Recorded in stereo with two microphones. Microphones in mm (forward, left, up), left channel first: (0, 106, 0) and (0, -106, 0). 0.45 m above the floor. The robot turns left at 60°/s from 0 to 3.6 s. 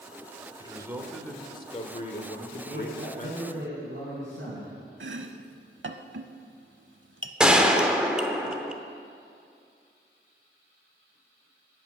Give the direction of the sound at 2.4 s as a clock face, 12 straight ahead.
1 o'clock.